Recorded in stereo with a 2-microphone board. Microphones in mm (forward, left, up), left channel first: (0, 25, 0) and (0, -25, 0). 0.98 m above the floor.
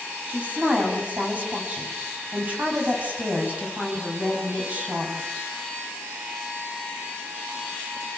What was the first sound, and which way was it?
A woman speaking, 35° right (ahead or behind).